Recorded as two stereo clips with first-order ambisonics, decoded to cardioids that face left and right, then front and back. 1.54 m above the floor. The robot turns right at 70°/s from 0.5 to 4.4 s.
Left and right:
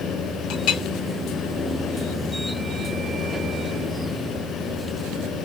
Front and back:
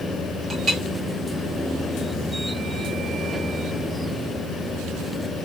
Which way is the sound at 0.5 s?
105° left.